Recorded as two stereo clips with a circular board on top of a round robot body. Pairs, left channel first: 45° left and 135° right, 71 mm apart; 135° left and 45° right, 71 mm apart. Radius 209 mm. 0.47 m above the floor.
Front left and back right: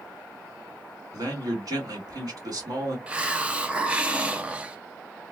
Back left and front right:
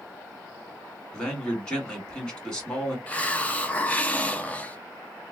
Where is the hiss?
175° left, 0.8 m.